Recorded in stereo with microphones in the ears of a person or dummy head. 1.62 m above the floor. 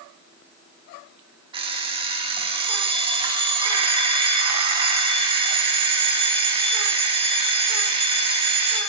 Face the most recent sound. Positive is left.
turn(degrees=-30)  # may be behind; listen again after turning